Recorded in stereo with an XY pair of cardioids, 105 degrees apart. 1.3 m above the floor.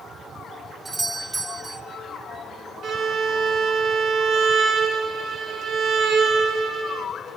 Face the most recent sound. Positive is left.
turn(degrees=-65)